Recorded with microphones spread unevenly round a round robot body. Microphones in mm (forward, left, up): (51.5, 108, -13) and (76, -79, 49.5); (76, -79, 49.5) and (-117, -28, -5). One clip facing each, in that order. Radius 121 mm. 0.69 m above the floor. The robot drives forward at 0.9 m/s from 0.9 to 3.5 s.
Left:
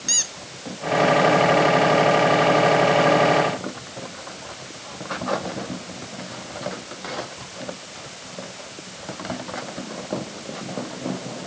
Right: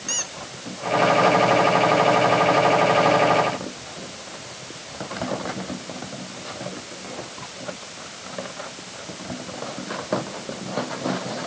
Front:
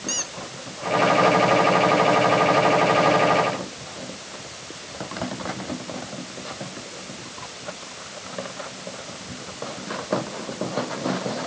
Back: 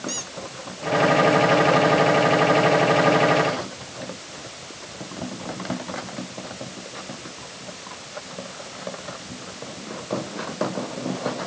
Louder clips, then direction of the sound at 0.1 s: Right 2 dB, even; 60° left.